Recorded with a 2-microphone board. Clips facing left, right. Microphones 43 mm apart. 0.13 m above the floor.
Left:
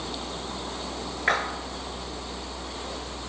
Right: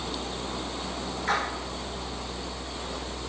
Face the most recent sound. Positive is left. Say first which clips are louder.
# left 3 dB
turn(degrees=45)  # may be behind; listen again after turning